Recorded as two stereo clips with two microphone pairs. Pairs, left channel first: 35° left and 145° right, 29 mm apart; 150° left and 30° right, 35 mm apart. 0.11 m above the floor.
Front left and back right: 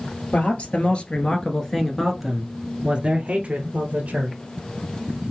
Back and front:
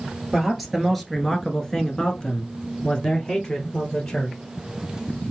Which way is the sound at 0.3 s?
55° left.